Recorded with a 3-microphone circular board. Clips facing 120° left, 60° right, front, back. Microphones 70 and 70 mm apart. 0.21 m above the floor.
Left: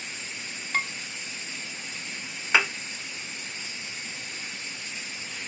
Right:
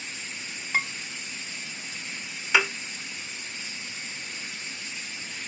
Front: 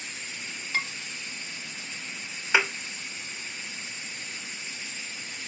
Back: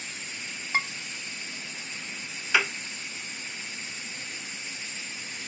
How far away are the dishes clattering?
About 0.9 m.